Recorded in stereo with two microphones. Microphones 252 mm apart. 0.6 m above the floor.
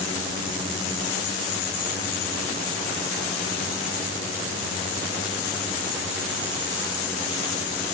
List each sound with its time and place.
Only background noise.